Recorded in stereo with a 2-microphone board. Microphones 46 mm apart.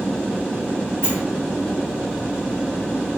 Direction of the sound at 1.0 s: 50° right (ahead or behind).